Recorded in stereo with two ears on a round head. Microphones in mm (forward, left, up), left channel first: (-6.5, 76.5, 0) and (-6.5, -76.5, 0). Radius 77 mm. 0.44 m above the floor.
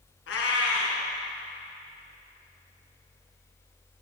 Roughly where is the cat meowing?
Left.